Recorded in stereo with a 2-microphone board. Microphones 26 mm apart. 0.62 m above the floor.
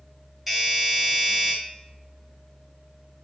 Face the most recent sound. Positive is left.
turn(degrees=-10)  # may be behind; listen again after turning